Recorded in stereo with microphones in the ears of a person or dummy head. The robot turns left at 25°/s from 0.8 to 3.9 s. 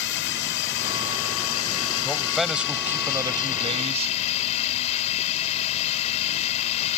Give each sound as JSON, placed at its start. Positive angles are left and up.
{"t": 0.0, "sound": "a drone", "azimuth_deg": 115}
{"t": 2.0, "sound": "a man speaking", "azimuth_deg": 5}